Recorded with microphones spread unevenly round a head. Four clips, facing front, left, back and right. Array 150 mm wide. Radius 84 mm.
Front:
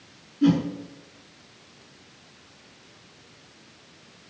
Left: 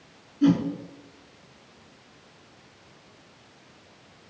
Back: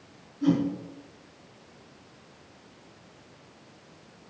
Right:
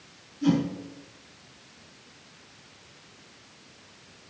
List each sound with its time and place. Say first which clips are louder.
0.4 s a whoosh: left 3 dB, front 4 dB; 35° left, 3.5 m